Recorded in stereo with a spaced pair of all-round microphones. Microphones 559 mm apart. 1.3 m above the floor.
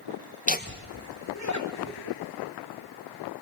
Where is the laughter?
15° left (ahead or behind), 1.6 m; by 2.2 s 35° left (ahead or behind), 4 m.